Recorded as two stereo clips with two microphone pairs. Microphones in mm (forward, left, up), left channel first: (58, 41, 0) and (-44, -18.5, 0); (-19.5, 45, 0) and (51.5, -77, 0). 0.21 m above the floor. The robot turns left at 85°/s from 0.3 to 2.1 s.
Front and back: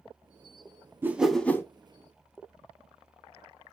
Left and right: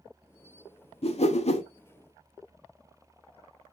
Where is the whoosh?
145° left, 0.6 m; by 1.6 s 90° left, 0.6 m.